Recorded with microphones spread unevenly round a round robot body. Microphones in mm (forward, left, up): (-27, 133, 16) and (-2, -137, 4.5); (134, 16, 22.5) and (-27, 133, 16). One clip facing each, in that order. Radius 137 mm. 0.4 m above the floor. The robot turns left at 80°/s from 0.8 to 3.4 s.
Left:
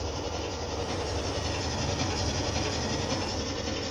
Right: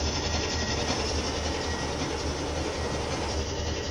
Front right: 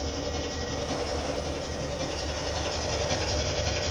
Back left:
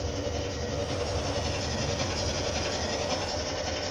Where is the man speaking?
No man speaking in this recording.